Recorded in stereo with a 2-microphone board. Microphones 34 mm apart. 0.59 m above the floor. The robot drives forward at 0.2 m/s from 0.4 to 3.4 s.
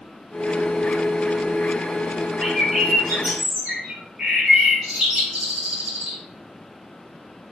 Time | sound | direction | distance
2.4 | a bird | 20° right (ahead or behind) | 4 m